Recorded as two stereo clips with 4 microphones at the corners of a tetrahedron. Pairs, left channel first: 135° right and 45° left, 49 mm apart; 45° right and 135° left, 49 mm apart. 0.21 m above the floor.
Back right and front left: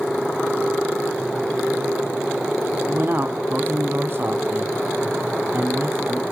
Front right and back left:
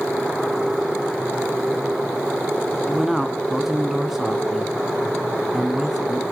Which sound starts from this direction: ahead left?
A man speaking, at 2.9 s.